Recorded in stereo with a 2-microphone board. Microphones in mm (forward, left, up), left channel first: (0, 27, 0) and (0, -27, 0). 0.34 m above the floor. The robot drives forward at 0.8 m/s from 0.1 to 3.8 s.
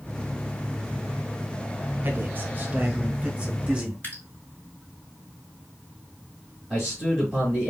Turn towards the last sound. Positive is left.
turn(degrees=0)  # may be behind; listen again after turning